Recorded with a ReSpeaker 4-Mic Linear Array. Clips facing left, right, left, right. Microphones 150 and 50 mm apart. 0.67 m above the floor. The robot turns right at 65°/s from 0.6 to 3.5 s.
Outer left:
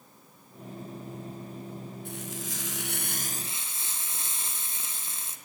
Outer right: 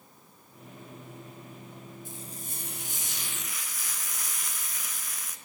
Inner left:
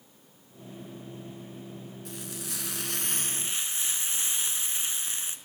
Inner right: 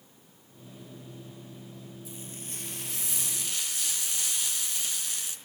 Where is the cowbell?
No cowbell in this recording.